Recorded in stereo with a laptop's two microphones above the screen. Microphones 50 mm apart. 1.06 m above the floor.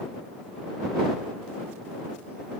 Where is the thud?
No thud in this recording.